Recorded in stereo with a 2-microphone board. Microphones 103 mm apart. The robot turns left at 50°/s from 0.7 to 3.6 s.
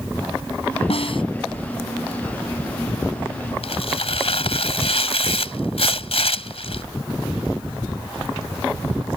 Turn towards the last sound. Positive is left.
turn(degrees=75)  # may be behind; listen again after turning